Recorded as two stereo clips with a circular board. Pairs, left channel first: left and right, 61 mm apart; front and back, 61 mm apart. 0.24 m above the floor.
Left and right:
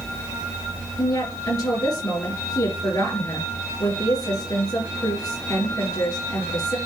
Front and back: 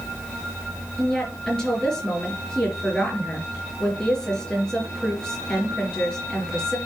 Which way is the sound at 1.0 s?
75° left.